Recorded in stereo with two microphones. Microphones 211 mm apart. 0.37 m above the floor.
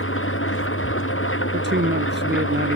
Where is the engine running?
75° left (ahead or behind).